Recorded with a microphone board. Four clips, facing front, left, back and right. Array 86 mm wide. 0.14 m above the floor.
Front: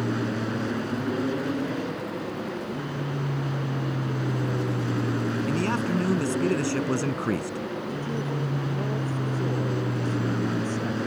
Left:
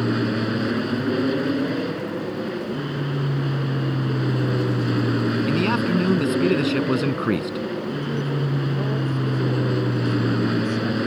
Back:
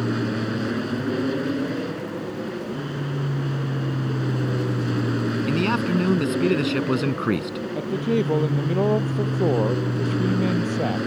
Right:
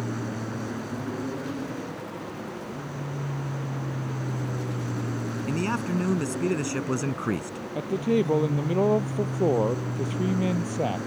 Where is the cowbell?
I don't hear a cowbell.